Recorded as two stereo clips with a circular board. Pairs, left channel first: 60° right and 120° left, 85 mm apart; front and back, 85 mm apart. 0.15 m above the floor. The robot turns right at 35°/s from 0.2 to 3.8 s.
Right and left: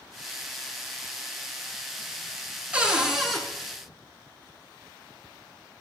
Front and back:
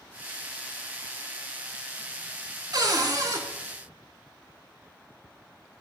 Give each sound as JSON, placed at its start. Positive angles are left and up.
{"t": 2.7, "sound": "a cupboard door", "azimuth_deg": -170, "distance_m": 0.6}